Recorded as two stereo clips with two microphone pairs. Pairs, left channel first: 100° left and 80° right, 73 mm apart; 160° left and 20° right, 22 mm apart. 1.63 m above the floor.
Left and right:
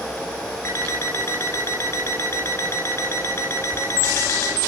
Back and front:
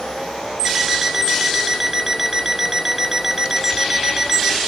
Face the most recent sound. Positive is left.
turn(degrees=50)